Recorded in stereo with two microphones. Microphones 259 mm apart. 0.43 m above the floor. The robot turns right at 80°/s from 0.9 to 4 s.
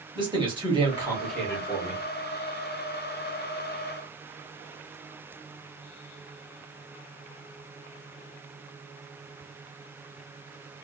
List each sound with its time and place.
0.1 s a man speaking: 30° right, 1.2 m; by 2.0 s 60° left, 1.2 m